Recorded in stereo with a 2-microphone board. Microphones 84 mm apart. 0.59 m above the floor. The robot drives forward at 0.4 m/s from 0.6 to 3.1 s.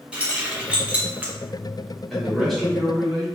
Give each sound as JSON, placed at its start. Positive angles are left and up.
{"t": 0.1, "sound": "keys jangling", "side_deg": -15, "distance_m": 0.8}
{"t": 2.1, "sound": "a man speaking", "side_deg": 5, "distance_m": 1.1}